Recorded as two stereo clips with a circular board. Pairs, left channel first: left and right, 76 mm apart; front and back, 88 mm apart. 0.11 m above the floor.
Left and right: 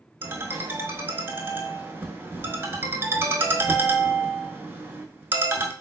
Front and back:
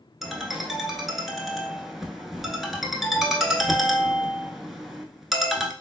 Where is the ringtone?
95° right, 0.5 m.